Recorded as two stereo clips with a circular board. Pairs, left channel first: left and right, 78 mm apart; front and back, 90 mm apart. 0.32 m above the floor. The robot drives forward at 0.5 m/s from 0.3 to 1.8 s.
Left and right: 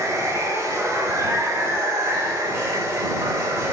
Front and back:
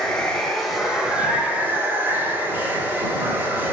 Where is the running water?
80° right, 1.5 m; by 3.7 s 125° right, 1.6 m.